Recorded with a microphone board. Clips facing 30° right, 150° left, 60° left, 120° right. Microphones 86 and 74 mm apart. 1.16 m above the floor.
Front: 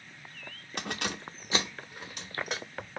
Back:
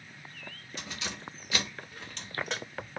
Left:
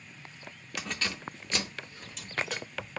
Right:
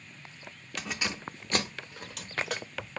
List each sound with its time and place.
0.8 s keys jangling: 25° right, 0.5 m; by 2.9 s 115° right, 1.6 m